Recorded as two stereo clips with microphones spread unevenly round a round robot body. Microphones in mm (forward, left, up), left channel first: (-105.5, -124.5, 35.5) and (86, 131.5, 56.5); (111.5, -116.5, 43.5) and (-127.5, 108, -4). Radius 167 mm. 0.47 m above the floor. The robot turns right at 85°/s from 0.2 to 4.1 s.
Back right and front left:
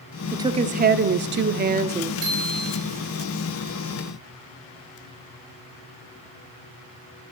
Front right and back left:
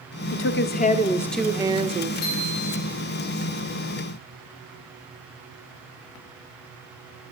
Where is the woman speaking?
30° right, 1.0 m; by 2.1 s 125° left, 1.0 m.